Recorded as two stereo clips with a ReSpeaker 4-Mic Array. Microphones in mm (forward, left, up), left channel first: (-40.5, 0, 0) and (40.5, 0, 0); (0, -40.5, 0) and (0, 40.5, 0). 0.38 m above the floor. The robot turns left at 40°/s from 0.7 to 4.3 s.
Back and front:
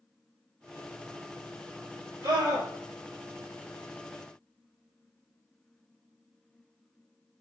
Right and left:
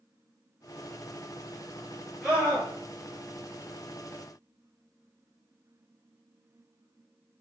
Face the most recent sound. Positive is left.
turn(degrees=-75)